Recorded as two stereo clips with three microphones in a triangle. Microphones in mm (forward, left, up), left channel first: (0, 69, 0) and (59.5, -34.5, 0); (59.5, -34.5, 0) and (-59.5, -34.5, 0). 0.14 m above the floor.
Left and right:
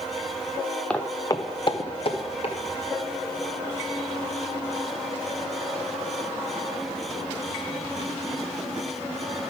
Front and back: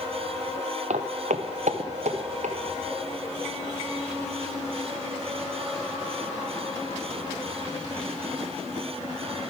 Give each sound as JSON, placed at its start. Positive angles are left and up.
{"t": 0.9, "sound": "footsteps", "azimuth_deg": -160, "distance_m": 0.7}